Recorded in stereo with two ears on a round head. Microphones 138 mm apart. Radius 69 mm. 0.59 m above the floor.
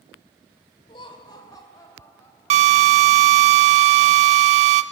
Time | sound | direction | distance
0.9 | laughter | 35° left (ahead or behind) | 2.5 m
2.5 | a drill | 40° right (ahead or behind) | 0.9 m